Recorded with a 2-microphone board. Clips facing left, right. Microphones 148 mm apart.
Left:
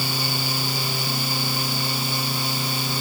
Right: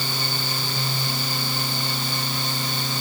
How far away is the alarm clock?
I don't hear an alarm clock.